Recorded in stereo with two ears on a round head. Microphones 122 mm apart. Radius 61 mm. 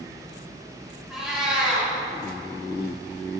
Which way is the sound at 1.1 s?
5° right (ahead or behind).